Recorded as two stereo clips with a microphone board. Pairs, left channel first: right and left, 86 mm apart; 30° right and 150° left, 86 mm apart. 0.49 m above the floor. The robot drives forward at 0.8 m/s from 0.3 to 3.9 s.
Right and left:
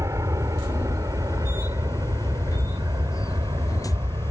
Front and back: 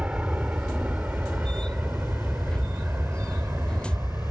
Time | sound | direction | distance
0.0 | an aircraft | 80° left | ?